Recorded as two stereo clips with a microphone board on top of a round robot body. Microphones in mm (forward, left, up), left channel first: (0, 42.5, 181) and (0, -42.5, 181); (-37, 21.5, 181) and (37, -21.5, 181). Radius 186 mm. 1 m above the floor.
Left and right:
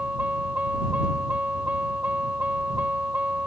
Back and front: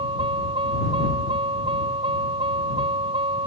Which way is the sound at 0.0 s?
15° right.